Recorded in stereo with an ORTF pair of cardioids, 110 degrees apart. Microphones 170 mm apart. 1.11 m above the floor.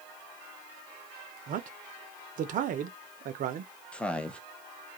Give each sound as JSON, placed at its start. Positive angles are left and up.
{"t": 1.5, "sound": "a man speaking", "azimuth_deg": -55, "distance_m": 0.6}
{"t": 3.9, "sound": "a man speaking", "azimuth_deg": 5, "distance_m": 0.6}